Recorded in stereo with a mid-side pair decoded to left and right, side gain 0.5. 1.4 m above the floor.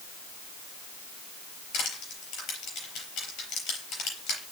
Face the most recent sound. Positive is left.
turn(degrees=70)